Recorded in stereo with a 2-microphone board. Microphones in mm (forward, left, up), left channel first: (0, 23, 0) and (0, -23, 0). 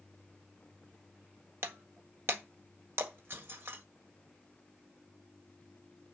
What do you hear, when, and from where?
1.6 s breaking glass: 65° right (ahead or behind), 1.6 m